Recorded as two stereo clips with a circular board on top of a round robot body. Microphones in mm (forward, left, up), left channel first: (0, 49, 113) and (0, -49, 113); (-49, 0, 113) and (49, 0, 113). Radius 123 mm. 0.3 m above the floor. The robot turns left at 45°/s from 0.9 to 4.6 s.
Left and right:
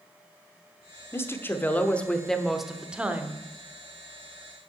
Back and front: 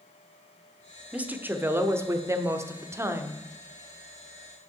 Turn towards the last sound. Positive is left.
turn(degrees=-95)